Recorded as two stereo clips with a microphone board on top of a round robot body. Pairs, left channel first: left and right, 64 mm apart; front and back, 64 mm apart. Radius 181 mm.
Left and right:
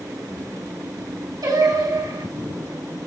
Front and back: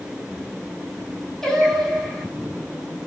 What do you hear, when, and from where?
1.4 s singing: 85° right, 6 m